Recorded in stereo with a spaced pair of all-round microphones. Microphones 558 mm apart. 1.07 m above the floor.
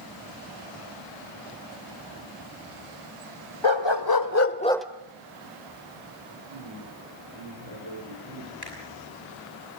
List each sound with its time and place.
3.6 s a dog barking: 55° left (ahead or behind), 1.4 m; by 4.9 s 5° right (ahead or behind), 0.8 m
6.3 s a man speaking: 55° right (ahead or behind), 4.5 m
8.6 s a finger snap: 40° right (ahead or behind), 8.5 m